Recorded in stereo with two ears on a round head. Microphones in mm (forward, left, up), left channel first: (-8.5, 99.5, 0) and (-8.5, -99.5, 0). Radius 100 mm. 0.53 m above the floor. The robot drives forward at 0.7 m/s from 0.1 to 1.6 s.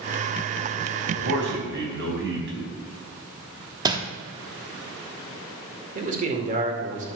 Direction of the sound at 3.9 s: 20° right (ahead or behind).